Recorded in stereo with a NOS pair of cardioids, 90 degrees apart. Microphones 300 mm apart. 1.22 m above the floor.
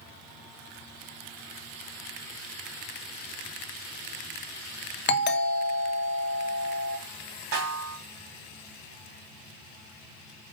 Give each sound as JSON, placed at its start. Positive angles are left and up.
{"t": 5.1, "sound": "a doorbell", "azimuth_deg": 40, "distance_m": 1.3}
{"t": 7.5, "sound": "a snare drum", "azimuth_deg": -65, "distance_m": 3.5}